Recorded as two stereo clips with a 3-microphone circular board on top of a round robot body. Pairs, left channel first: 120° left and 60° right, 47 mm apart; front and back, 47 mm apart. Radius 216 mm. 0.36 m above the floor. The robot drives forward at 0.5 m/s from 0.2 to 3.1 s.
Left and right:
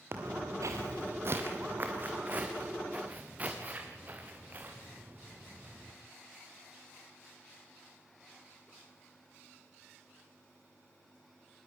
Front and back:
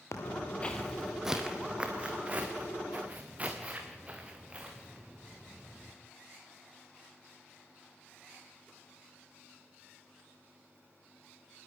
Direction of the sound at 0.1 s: 20° right.